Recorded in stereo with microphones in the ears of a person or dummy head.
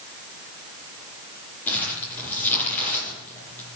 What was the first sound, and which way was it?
Crumpling, 10° left (ahead or behind).